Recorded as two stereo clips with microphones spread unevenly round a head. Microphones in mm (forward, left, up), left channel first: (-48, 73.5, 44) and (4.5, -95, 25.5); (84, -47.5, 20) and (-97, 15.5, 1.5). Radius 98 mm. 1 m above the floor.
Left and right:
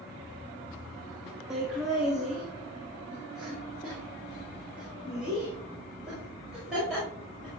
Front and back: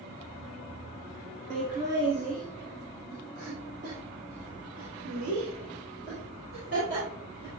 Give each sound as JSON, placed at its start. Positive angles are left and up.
{"t": 1.5, "sound": "laughter", "azimuth_deg": -155, "distance_m": 1.7}